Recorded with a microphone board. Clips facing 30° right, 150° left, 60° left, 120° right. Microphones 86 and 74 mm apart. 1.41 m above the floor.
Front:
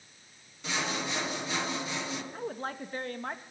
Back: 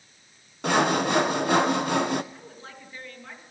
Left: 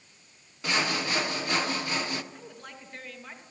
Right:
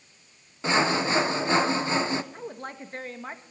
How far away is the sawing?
About 1.1 m.